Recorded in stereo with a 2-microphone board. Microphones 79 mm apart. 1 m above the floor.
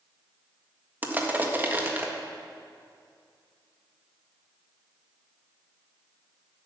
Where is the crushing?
25° right (ahead or behind), 1.6 m.